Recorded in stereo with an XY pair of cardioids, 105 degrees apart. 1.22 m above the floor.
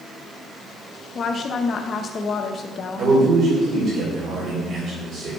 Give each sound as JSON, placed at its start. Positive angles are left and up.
{"t": 1.1, "sound": "a woman speaking", "azimuth_deg": 45, "distance_m": 0.9}
{"t": 3.0, "sound": "a man speaking", "azimuth_deg": -65, "distance_m": 4.5}